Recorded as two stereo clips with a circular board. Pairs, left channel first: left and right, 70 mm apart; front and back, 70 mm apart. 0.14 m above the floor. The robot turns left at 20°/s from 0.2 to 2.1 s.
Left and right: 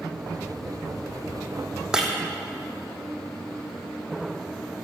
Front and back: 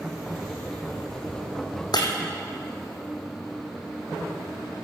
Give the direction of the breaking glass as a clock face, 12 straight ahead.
12 o'clock.